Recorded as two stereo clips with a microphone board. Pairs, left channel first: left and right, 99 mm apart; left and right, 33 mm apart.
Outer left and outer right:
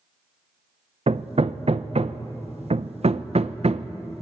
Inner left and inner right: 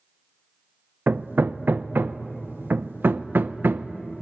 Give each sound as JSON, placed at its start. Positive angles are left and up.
{"t": 1.1, "sound": "hammering", "side_deg": -75, "distance_m": 0.7}